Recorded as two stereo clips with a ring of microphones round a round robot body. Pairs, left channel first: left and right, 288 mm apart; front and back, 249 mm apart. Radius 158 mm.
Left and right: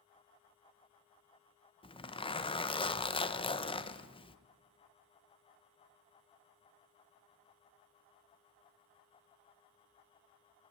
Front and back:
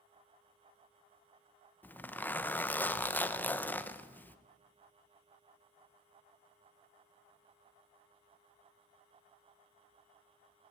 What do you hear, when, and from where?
1.8 s a zipper: 70° left, 0.9 m